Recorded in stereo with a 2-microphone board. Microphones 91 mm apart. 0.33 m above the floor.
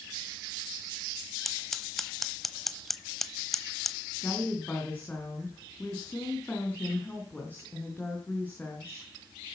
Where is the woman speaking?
20° left (ahead or behind), 3.5 m.